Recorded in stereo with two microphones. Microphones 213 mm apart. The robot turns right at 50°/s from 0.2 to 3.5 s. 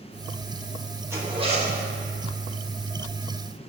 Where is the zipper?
165° right, 1.3 m; by 1.8 s 135° right, 1.3 m.